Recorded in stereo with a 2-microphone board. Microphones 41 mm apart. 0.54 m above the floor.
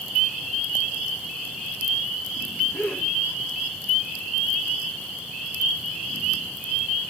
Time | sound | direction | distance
2.7 | a gasp | 80° left | 7 m